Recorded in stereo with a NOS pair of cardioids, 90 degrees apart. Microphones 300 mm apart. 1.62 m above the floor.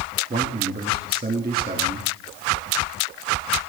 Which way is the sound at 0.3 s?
30° right.